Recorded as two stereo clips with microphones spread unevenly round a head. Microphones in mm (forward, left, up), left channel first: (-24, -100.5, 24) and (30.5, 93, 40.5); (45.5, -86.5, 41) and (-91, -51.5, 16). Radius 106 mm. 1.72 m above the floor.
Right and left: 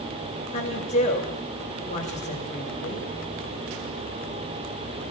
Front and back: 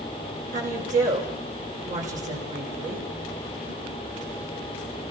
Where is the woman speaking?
165° right, 6.5 m.